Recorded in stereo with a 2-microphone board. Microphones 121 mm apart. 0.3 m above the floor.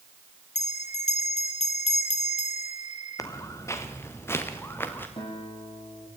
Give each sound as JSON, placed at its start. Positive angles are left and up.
{"t": 0.6, "sound": "a bell", "side_deg": 75, "distance_m": 1.9}
{"t": 3.2, "sound": "footsteps", "side_deg": 25, "distance_m": 2.5}
{"t": 5.2, "sound": "a guitar", "side_deg": 45, "distance_m": 8.5}